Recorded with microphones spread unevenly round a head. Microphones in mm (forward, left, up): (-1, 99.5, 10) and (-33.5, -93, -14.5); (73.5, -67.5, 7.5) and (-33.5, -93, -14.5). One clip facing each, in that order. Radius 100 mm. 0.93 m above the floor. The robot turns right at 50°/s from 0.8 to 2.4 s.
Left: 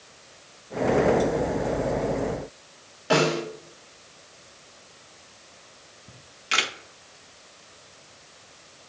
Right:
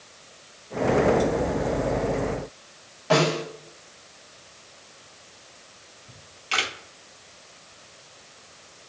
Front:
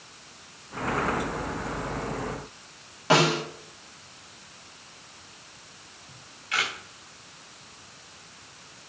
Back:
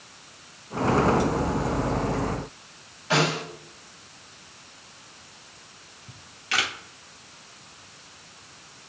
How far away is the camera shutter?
About 0.9 m.